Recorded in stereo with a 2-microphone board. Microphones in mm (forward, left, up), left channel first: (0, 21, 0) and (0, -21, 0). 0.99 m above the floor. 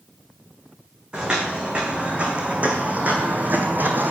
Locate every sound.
1.1 s footsteps: 25° right (ahead or behind), 3 m; by 4.1 s 50° right (ahead or behind), 2 m